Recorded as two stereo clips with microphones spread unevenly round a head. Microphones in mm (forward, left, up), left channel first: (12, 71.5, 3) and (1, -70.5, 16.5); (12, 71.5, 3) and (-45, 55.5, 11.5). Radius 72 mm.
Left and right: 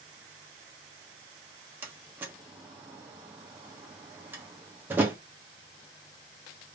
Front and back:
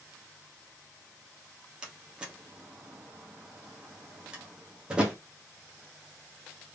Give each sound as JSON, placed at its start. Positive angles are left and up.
{"t": 1.8, "sound": "a door slam", "azimuth_deg": -140, "distance_m": 0.9}